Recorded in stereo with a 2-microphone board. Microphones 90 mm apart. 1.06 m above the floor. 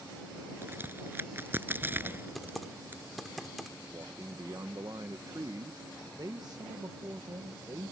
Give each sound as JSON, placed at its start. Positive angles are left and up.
{"t": 0.6, "sound": "a crack", "side_deg": -25}
{"t": 2.4, "sound": "typing on a keyboard", "side_deg": 0}
{"t": 3.9, "sound": "a man speaking", "side_deg": -50}